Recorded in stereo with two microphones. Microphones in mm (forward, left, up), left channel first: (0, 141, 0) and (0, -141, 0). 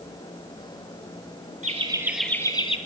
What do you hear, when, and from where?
1.6 s laughter: 25° right (ahead or behind), 1.1 m; by 2.8 s 20° left (ahead or behind), 1.3 m